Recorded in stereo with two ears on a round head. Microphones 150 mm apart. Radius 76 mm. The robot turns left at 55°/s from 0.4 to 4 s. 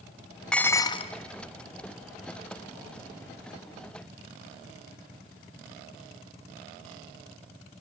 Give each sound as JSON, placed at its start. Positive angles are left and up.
{"t": 0.5, "sound": "dishes clattering", "azimuth_deg": 175, "distance_m": 0.7}